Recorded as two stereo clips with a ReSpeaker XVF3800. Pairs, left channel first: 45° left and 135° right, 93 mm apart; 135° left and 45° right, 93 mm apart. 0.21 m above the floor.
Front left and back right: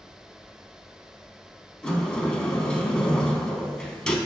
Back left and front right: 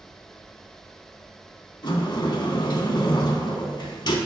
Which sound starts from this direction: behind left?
A sliding door, at 1.8 s.